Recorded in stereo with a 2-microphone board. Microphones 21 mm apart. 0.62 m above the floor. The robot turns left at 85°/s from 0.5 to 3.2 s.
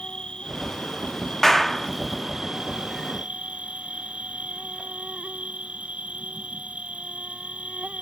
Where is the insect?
125° left; by 8.0 s 105° right.